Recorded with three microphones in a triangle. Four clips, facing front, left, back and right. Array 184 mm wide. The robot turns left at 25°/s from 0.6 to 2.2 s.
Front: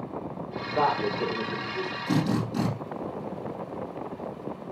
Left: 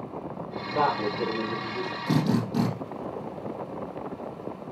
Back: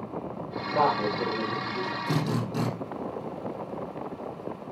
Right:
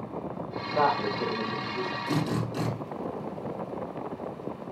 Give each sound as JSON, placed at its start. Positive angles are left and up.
{"t": 0.8, "sound": "a man speaking", "azimuth_deg": 150, "distance_m": 6.5}
{"t": 2.1, "sound": "a drill", "azimuth_deg": 95, "distance_m": 5.0}